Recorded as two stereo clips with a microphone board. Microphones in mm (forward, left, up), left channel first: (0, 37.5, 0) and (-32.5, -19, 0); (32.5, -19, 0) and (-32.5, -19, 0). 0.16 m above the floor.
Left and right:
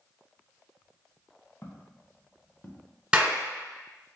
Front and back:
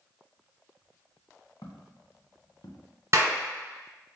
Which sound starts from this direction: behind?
A clap, at 3.1 s.